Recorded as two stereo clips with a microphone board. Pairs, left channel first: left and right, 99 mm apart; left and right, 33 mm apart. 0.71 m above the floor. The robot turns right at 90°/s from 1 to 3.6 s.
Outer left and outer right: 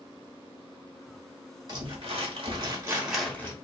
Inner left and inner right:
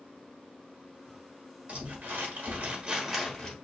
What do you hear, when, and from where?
1.7 s crumpling: 135° right, 0.9 m; by 3.5 s 30° left, 0.9 m